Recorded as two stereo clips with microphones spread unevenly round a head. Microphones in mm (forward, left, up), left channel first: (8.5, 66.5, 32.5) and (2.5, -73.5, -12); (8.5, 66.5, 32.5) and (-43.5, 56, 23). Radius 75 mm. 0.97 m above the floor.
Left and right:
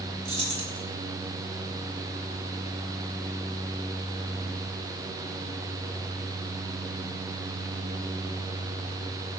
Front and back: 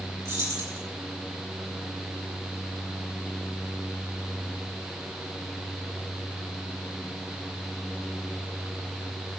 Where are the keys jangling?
140° right, 5 m.